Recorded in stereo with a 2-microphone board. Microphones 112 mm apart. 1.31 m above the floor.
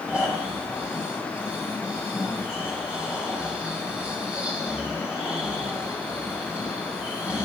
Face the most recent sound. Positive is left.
turn(degrees=-10)  # may be behind; listen again after turning